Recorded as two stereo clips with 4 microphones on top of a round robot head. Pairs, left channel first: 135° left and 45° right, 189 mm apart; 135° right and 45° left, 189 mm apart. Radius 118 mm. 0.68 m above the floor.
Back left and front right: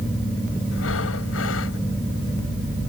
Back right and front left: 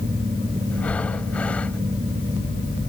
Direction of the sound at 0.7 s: 140° left.